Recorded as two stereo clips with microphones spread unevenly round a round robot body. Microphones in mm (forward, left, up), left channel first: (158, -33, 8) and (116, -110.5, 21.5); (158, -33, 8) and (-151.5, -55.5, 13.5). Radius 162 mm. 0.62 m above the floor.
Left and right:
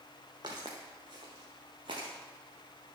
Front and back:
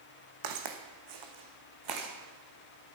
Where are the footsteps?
170° left, 2.5 m; by 2.1 s 170° right, 3.5 m.